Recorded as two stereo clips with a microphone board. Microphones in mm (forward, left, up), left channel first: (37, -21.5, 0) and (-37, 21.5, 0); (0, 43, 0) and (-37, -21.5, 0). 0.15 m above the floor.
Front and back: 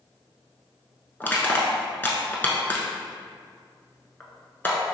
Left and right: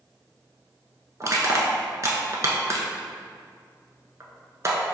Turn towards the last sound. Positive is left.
turn(degrees=-90)